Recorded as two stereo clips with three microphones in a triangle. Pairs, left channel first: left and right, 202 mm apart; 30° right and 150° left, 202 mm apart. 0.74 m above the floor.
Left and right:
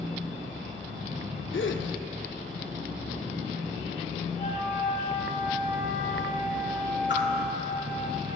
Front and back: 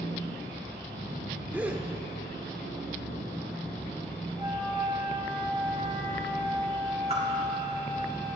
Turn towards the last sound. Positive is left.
turn(degrees=95)